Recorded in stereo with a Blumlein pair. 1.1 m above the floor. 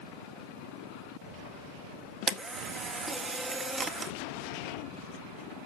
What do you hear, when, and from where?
2.3 s a camera shutter: 20° right, 1.6 m